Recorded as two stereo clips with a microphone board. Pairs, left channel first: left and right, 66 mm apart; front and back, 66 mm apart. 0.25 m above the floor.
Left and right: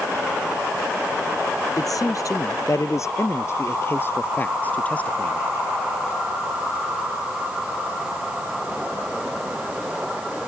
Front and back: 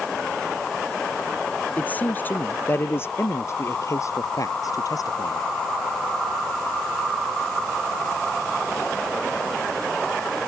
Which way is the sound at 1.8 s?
65° left.